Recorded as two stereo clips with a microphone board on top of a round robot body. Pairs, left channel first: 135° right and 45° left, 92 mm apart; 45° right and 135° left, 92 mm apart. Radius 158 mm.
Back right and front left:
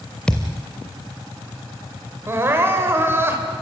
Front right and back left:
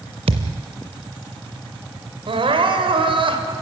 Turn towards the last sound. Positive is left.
turn(degrees=110)